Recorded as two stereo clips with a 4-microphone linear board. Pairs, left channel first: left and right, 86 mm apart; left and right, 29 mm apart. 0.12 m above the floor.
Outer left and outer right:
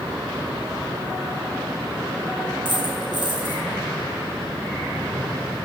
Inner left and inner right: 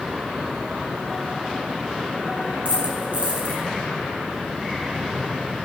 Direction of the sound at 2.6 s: 55° right (ahead or behind).